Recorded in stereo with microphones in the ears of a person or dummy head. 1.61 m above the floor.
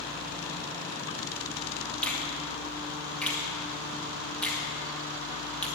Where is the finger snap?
10° left (ahead or behind), 2 m.